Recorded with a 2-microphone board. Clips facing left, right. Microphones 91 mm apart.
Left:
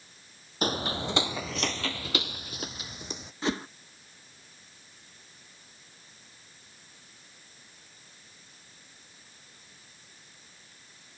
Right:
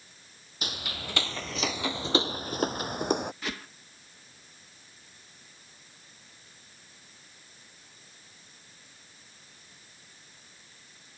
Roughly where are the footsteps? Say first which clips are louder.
Left 9 dB; left.